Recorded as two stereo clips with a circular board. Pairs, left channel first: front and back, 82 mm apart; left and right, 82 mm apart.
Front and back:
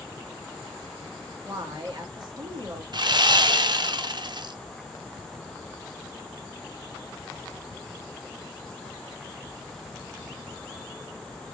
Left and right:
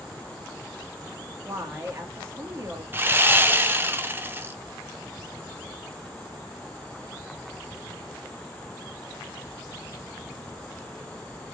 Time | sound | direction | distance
1.4 | a woman speaking | 150° right | 1.8 m
2.9 | sawing | 155° right | 0.5 m